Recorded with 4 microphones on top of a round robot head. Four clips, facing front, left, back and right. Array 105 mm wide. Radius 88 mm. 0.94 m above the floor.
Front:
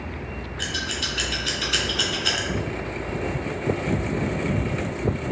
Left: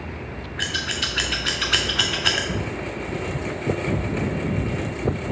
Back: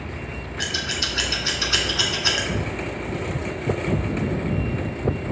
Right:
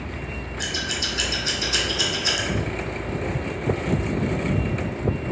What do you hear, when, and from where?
0.6 s scissors: 120° left, 1.0 m